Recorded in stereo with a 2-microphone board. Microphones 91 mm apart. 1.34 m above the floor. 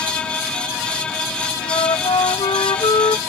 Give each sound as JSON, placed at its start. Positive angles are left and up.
{"t": 1.6, "sound": "a flute", "side_deg": 80}